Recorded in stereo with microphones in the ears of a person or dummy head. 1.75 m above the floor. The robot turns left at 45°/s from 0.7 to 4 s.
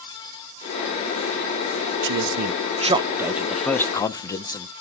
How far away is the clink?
I don't hear a clink.